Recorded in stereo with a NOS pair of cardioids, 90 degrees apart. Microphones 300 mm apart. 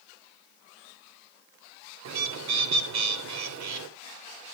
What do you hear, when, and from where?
2.0 s a bird: 65° right, 3 m